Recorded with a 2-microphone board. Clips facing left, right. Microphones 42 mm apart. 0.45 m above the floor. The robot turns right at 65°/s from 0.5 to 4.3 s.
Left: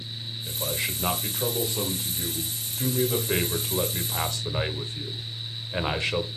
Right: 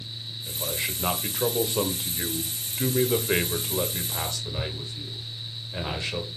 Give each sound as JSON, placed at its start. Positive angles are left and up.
{"t": 0.5, "sound": "a man speaking", "azimuth_deg": 150, "distance_m": 1.6}